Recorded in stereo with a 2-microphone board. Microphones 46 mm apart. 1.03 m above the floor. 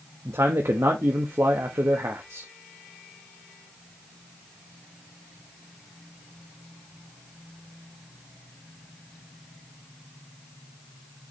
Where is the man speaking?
75° right (ahead or behind), 1.2 m.